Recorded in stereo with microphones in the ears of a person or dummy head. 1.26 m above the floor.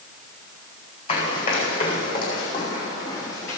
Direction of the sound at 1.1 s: 40° left (ahead or behind).